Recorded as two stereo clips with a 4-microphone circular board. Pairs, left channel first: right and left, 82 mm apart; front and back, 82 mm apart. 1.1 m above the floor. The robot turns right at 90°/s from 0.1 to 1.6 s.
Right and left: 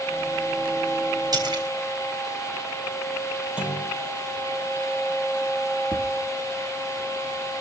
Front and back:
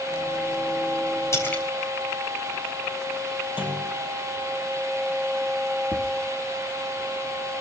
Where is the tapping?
25° left, 3 m.